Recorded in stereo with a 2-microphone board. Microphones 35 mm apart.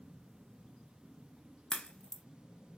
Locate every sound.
1.7 s a crack: 25° left (ahead or behind), 0.5 m